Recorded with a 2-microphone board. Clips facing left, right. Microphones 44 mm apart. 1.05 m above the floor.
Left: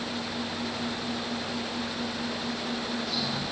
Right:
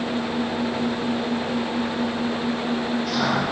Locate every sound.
0.0 s an engine running: 55° right (ahead or behind)